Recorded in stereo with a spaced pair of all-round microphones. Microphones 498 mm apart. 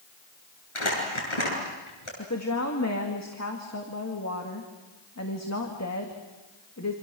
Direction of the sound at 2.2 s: 30° left (ahead or behind).